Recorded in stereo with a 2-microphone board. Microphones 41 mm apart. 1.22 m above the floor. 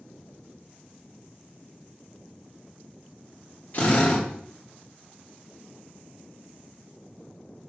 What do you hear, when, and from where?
3.7 s a drill: 50° left (ahead or behind), 2.5 m